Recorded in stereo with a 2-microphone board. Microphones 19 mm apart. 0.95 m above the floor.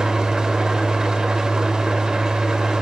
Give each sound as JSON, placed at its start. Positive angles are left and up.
{"t": 0.0, "sound": "an engine running", "side_deg": -45, "distance_m": 3.0}